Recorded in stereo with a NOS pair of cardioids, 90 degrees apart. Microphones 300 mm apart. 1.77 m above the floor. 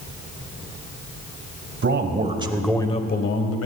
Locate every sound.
1.8 s a man speaking: 40° right, 1.7 m; by 3.7 s 55° left, 1.6 m